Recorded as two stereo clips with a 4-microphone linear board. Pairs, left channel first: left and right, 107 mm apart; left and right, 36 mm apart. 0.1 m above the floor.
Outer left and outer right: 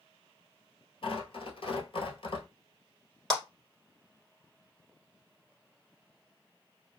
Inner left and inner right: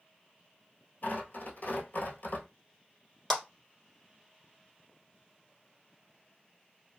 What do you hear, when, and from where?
1.0 s tearing paper: 55° left (ahead or behind), 1.0 m
3.3 s a clap: 5° left (ahead or behind), 1.3 m